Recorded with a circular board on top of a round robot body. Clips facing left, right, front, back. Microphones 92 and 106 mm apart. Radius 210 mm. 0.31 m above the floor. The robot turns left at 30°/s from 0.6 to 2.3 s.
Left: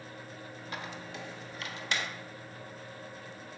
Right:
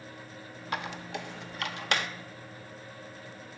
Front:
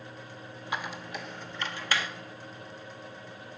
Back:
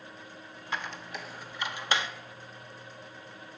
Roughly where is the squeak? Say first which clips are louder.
Right 7 dB, front 1 dB; right.